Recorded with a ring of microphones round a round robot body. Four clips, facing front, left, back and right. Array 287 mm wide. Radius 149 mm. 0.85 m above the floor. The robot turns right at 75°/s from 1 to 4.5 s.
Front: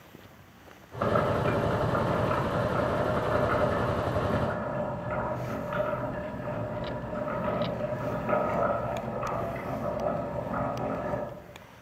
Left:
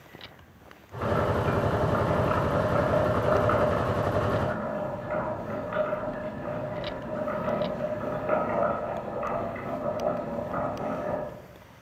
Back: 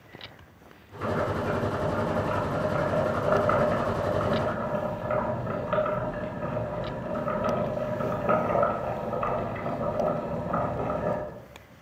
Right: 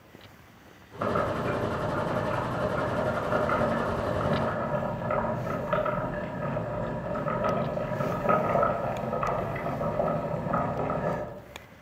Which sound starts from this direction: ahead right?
Boiling, at 1.0 s.